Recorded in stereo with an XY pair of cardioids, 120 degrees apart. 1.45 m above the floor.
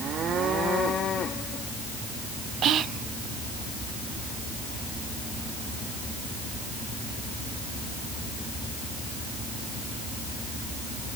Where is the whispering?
55° right, 0.6 m.